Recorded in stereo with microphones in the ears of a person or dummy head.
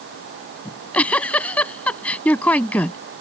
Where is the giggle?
10° left (ahead or behind).